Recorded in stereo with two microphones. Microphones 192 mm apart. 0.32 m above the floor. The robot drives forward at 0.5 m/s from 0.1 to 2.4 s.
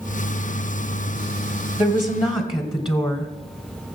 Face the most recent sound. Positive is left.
turn(degrees=25)  # may be behind; listen again after turning